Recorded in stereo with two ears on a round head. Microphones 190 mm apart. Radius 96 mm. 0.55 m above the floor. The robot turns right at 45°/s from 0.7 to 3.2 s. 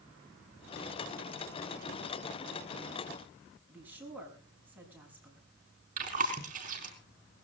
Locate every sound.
3.7 s a woman speaking: 10° right (ahead or behind), 6 m
6.0 s chewing: 40° right (ahead or behind), 4 m